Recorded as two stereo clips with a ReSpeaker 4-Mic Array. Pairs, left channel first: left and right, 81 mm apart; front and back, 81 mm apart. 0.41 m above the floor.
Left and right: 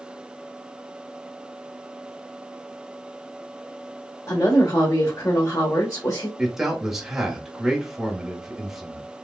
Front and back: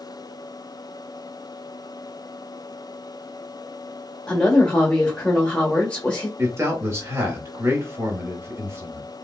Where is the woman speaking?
70° left, 1.0 m.